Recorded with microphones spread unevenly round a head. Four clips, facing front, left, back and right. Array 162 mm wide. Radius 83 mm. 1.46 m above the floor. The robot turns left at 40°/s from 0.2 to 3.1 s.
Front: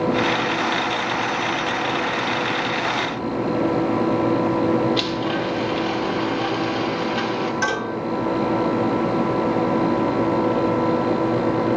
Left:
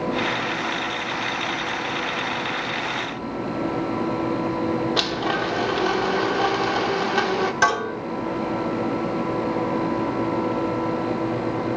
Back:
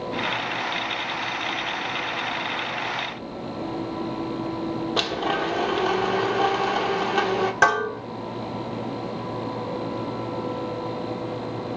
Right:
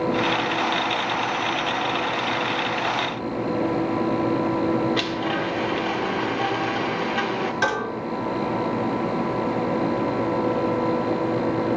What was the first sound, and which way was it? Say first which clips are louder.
A blender: left 1 dB, front 2 dB; 130° left.